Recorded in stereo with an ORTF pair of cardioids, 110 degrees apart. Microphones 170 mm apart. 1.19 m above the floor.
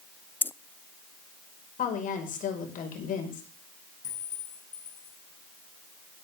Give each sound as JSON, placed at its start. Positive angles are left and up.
{"t": 0.4, "sound": "keys jangling", "azimuth_deg": 10, "distance_m": 0.6}
{"t": 1.8, "sound": "a woman speaking", "azimuth_deg": 50, "distance_m": 5.5}
{"t": 4.0, "sound": "a clink", "azimuth_deg": 50, "distance_m": 8.5}